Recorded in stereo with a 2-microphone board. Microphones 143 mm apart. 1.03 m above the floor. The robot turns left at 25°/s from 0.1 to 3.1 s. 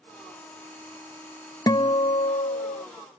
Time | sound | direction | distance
1.7 | a guitar | 155° left | ?